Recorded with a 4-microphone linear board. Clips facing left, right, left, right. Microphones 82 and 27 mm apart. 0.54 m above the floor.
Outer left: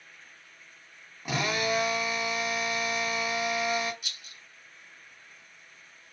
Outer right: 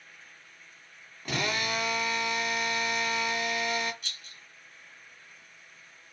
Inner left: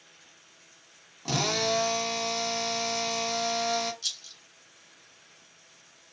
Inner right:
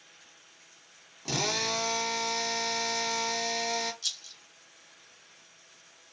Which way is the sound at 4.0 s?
5° left (ahead or behind).